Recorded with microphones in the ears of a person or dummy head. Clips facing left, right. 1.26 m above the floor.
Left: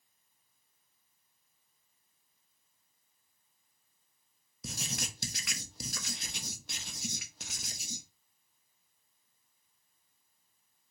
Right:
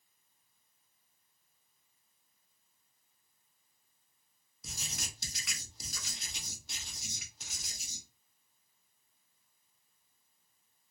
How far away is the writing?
About 0.6 m.